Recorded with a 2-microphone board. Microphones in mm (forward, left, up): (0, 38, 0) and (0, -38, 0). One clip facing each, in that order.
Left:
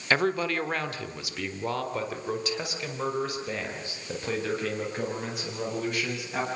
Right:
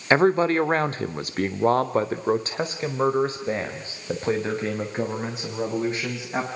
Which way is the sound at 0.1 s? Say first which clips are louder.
Right 7 dB; 30° right (ahead or behind).